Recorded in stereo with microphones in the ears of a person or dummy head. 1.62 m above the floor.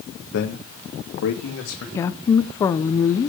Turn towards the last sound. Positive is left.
turn(degrees=20)  # may be behind; listen again after turning